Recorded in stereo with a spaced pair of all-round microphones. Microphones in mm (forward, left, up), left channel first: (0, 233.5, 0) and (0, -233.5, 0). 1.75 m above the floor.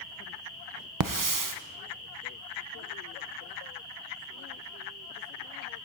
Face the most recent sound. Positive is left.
turn(degrees=-40)  # may be behind; listen again after turning